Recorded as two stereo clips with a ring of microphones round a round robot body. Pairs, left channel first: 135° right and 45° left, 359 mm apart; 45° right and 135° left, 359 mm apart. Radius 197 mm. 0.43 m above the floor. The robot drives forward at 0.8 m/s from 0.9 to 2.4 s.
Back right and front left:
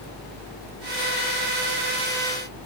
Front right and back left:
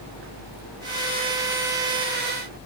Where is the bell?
No bell in this recording.